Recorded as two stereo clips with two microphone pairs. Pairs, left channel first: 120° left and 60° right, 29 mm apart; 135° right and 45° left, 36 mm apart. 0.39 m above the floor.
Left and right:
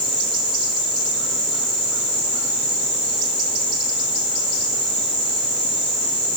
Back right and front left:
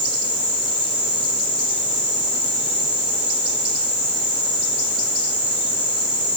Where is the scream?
No scream in this recording.